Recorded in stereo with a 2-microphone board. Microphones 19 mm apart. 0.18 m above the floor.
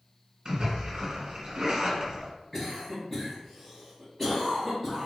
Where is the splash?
40° right (ahead or behind), 1.4 m.